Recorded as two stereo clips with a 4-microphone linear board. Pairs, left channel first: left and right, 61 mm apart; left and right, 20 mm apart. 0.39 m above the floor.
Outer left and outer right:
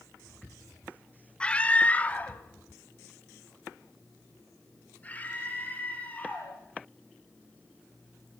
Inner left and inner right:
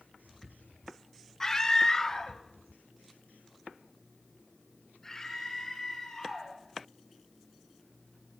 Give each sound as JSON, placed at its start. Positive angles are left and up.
{"t": 1.4, "sound": "a scream", "side_deg": 20, "distance_m": 0.8}